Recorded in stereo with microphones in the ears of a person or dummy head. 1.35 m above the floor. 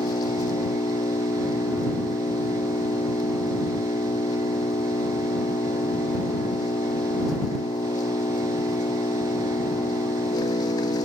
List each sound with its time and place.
0.0 s an engine running: 20° left (ahead or behind)